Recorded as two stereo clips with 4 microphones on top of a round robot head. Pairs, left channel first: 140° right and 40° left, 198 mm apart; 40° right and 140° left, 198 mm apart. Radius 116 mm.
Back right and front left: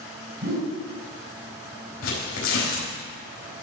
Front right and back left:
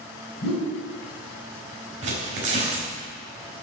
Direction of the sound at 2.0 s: 165° right.